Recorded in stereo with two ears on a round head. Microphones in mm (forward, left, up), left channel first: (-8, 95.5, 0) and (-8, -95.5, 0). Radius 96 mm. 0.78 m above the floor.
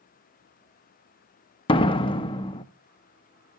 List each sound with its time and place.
1.7 s a door slam: 25° left (ahead or behind), 0.6 m